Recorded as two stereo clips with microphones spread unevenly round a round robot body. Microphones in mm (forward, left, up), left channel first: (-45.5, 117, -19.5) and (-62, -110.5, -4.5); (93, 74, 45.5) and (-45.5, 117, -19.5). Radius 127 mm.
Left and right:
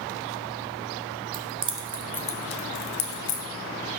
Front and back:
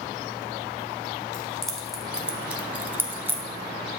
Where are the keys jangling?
130° right, 0.9 m; by 3.4 s 105° left, 1.4 m.